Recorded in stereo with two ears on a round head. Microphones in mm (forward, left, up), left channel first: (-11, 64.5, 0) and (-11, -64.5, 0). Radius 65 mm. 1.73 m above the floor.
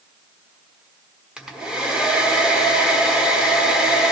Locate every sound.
1.4 s a hair dryer: 5° right (ahead or behind), 1.1 m